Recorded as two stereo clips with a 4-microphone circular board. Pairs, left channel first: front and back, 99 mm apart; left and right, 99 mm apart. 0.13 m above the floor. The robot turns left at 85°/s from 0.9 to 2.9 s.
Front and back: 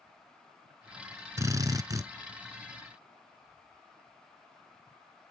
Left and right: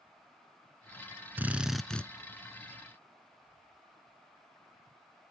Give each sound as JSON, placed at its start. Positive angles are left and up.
{"t": 1.4, "sound": "a drill", "azimuth_deg": -145, "distance_m": 0.6}